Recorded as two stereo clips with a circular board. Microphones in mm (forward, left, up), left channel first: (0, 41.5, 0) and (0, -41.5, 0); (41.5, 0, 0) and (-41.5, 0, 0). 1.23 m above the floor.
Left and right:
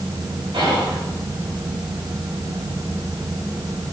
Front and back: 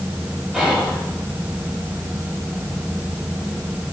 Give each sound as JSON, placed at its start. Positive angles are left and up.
{"t": 0.5, "sound": "whispering", "azimuth_deg": -100, "distance_m": 2.5}